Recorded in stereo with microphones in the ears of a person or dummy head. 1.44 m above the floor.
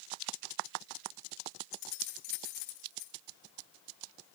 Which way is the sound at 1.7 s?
60° left (ahead or behind).